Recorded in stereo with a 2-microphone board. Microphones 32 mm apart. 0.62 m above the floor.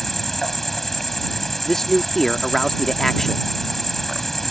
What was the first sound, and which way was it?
An insect, 5° left (ahead or behind).